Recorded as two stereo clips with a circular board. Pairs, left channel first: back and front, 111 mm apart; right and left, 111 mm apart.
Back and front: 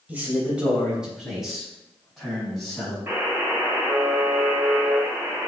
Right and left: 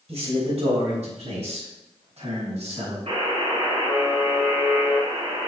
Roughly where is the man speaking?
Left.